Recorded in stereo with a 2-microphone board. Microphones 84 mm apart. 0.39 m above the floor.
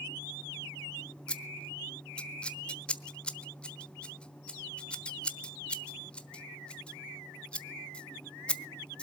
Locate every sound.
1.3 s scissors: 15° left (ahead or behind), 1.1 m